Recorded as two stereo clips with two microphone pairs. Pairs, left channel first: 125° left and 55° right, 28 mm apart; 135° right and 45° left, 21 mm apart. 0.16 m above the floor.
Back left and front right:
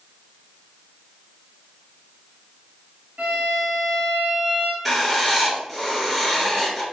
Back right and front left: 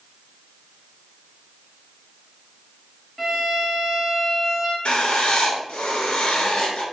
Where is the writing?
140° right, 0.9 m.